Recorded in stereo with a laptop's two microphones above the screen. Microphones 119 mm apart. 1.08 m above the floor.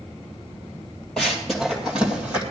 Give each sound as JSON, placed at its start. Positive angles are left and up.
{"t": 1.2, "sound": "running footsteps", "side_deg": 5, "distance_m": 2.0}